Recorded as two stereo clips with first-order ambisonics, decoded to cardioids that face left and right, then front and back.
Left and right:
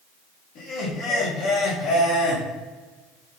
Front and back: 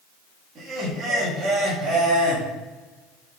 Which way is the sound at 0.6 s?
125° left.